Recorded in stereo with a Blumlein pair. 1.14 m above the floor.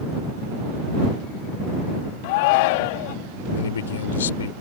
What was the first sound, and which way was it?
A shout, 50° left.